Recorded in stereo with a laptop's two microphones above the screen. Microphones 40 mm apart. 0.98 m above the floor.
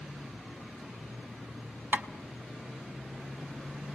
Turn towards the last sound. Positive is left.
turn(degrees=-50)  # may be behind; listen again after turning